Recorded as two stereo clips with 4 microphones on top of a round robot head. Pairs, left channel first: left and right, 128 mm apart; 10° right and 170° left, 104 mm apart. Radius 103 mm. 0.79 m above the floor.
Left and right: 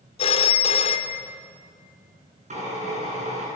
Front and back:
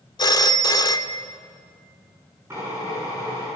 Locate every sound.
0.2 s a phone ringing: 40° left, 1.1 m
2.5 s a drill: 120° right, 9 m